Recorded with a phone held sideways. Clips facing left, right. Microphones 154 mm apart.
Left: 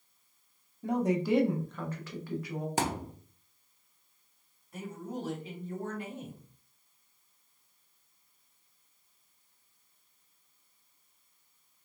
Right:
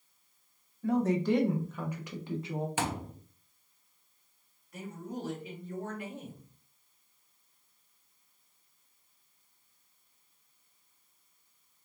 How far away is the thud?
About 0.7 m.